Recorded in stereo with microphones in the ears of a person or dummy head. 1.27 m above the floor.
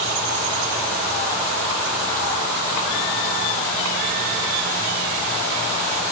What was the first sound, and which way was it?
Only background noise.